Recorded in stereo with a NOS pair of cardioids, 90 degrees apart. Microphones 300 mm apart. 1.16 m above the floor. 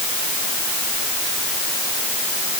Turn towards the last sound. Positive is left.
No sound to turn to.